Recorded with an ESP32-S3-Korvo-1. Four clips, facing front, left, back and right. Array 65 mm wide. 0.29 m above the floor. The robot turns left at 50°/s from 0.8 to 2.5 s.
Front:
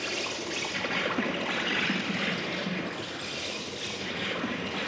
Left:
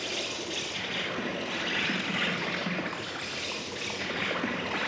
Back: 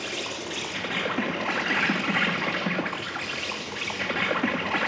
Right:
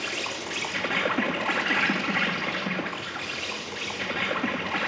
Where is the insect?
100° right, 2.5 m; by 4.9 s 175° left, 2.5 m.